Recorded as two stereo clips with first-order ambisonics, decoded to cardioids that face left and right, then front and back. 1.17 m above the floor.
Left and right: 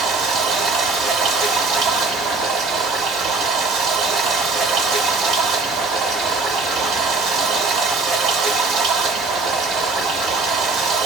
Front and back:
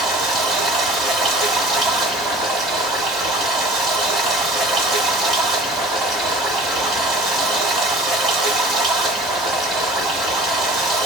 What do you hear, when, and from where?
0.0 s running water: 125° right, 1.6 m